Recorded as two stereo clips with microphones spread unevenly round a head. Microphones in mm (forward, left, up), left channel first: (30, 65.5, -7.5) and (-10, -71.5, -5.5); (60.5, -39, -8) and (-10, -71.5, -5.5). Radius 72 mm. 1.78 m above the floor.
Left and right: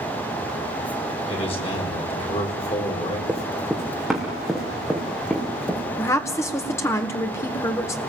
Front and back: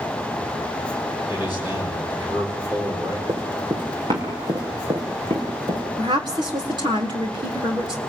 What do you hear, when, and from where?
1.3 s a man speaking: 130° left, 4.5 m
3.3 s running footsteps: 170° left, 4.5 m; by 5.8 s 155° left, 6 m
6.0 s a woman speaking: 145° left, 2 m